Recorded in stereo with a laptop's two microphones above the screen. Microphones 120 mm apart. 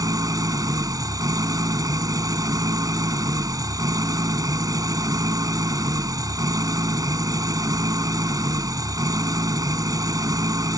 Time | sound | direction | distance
0.0 | an engine running | 30° right (ahead or behind) | ?